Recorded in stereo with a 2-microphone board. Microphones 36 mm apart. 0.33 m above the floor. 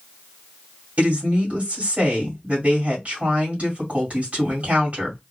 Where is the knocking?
No knocking in this recording.